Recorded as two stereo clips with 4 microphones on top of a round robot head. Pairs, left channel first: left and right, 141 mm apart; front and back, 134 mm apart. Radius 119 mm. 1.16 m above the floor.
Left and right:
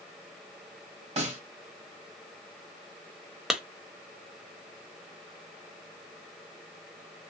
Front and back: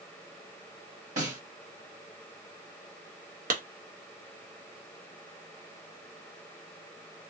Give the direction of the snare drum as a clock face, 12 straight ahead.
4 o'clock.